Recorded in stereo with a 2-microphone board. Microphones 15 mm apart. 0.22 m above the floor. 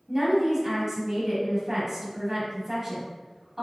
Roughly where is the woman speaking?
Right.